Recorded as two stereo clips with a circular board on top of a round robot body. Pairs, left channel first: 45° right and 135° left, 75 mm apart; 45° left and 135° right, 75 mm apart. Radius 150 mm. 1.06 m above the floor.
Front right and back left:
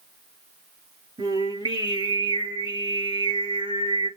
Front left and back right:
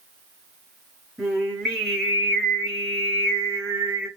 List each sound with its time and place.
1.2 s singing: 135° left, 5.5 m